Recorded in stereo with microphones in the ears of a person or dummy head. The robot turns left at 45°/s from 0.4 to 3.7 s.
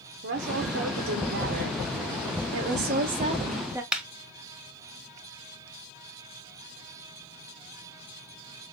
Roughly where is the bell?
I don't hear a bell.